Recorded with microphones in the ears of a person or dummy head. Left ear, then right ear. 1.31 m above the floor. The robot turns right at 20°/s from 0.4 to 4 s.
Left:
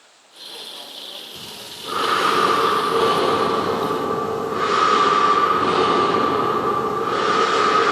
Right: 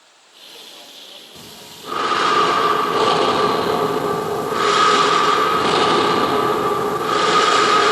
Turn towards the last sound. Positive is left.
turn(degrees=-120)